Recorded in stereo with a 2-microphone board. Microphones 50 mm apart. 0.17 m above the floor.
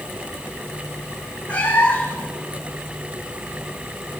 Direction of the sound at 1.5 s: 30° left (ahead or behind).